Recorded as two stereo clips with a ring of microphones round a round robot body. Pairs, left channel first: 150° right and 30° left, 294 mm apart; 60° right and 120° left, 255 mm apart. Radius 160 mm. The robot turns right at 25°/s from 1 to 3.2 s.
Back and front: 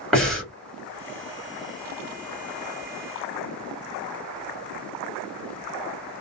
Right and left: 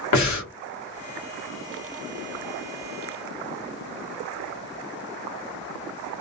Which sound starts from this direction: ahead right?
Breathing, at 0.1 s.